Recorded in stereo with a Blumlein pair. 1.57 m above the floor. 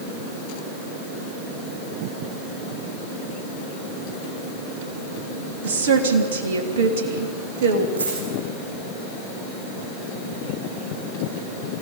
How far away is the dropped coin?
About 9 m.